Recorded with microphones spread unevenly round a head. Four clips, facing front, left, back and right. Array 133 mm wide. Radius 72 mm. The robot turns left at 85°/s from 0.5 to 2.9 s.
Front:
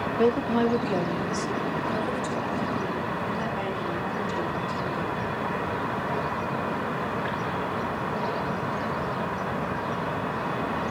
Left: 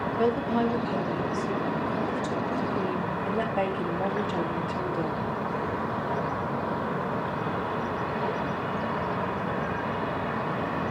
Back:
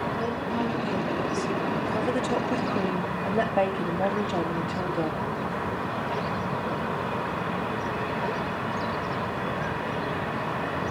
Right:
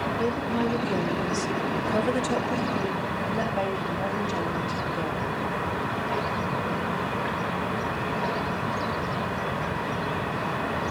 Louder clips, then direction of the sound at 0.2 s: Left 4 dB, front 6 dB; 20° left.